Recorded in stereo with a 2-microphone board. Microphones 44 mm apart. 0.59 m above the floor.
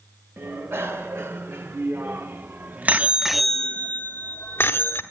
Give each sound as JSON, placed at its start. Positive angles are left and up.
{"t": 0.4, "sound": "a bicycle bell", "side_deg": -75, "distance_m": 2.0}